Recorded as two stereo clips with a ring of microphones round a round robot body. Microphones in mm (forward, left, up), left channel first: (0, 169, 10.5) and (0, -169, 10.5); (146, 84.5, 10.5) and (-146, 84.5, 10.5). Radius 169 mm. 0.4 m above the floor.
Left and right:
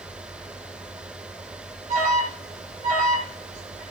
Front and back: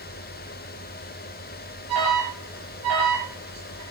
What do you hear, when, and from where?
1.9 s an alarm: 160° right, 9 m